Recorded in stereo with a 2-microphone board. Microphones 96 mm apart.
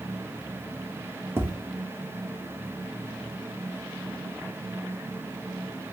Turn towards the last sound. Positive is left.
turn(degrees=-25)  # may be behind; listen again after turning